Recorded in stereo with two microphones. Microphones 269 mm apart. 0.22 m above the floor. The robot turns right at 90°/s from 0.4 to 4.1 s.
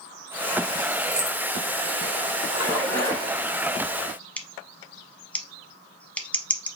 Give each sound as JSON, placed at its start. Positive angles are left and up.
{"t": 1.1, "sound": "keys jangling", "side_deg": -20, "distance_m": 1.6}
{"t": 2.5, "sound": "a splash", "azimuth_deg": -30, "distance_m": 3.0}
{"t": 4.4, "sound": "scissors", "side_deg": 5, "distance_m": 0.7}